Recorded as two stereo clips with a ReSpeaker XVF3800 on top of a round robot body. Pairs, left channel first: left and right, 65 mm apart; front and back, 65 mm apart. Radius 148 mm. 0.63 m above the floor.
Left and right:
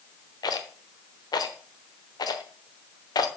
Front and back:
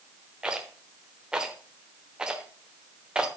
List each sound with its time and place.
0.4 s a rattle: 100° left, 1.1 m